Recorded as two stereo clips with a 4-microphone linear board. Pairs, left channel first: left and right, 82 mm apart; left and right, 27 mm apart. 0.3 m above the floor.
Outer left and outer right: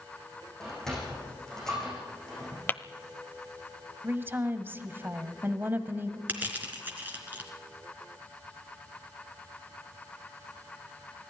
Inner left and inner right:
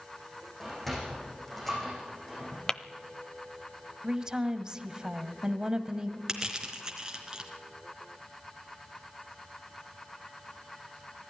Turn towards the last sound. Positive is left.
turn(degrees=-20)  # may be behind; listen again after turning